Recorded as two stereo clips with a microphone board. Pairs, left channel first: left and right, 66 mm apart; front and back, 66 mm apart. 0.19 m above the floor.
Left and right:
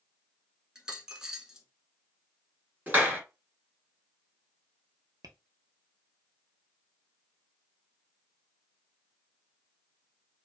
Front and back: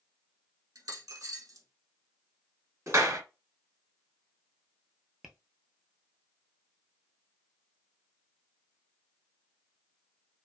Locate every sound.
0.8 s a dropped coin: 170° right, 0.8 m
2.9 s a clap: 145° right, 1.4 m
5.2 s tapping: 95° right, 0.7 m